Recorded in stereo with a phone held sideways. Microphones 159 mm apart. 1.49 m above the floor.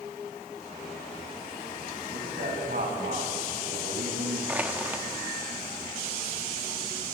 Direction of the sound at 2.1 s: 70° right (ahead or behind).